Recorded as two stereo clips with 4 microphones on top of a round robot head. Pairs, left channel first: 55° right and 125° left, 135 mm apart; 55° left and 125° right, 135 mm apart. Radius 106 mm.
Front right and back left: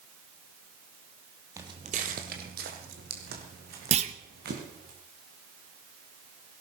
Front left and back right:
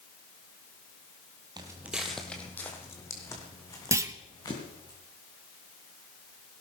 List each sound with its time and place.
1.6 s footsteps: 175° right, 1.1 m; by 4.9 s 120° left, 4.5 m
3.9 s a clunk: 165° left, 1.0 m